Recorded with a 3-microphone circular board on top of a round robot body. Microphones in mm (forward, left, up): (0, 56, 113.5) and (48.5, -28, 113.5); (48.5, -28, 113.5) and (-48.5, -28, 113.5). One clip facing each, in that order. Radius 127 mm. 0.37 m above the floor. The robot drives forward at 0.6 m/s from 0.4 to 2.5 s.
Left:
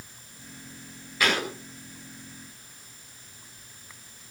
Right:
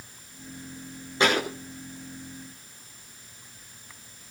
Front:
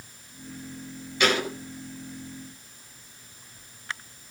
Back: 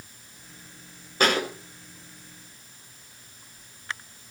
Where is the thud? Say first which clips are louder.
Right 3 dB, back 1 dB; 125° right, 8 m; by 1.5 s 130° right, 8 m.